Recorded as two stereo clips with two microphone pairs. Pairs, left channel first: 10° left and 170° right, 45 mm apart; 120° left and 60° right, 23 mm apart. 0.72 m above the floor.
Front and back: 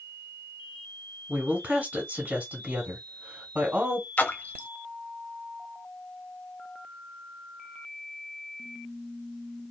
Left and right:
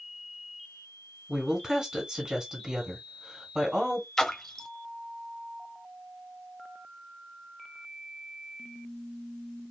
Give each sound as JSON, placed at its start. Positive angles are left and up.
{"t": 1.3, "sound": "a woman speaking", "azimuth_deg": -110, "distance_m": 2.5}
{"t": 4.2, "sound": "a splash", "azimuth_deg": 55, "distance_m": 1.0}